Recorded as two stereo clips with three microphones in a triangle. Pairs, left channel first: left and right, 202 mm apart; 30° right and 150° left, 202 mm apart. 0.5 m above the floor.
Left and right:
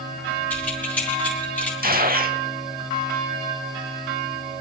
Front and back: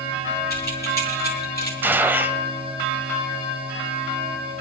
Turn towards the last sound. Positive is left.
turn(degrees=-130)